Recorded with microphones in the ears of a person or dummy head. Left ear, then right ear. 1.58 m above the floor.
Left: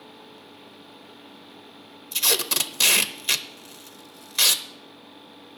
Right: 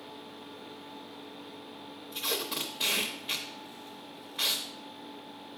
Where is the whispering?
I don't hear whispering.